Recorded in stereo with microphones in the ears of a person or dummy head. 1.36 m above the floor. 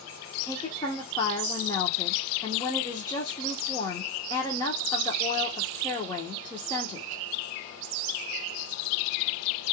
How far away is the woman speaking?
About 0.9 m.